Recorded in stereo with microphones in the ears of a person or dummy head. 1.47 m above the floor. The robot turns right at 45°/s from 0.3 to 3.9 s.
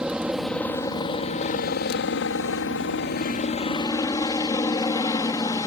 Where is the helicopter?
5° right; by 5.7 s 155° left.